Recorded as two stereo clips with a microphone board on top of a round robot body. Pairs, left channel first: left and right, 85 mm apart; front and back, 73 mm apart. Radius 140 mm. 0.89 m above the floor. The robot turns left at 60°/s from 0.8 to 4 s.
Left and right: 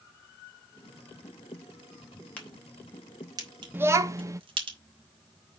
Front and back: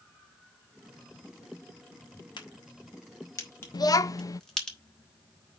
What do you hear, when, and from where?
2.4 s a crack: 20° left, 3.5 m; by 4.7 s 80° right, 3.5 m
3.7 s a child speaking: 25° right, 1.0 m; by 4.4 s 40° right, 1.0 m